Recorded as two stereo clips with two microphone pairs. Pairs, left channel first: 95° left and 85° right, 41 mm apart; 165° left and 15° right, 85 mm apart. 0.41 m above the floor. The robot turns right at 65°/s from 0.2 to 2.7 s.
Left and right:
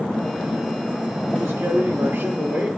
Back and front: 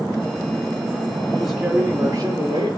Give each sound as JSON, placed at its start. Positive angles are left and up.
{"t": 1.4, "sound": "a man speaking", "azimuth_deg": -115, "distance_m": 5.5}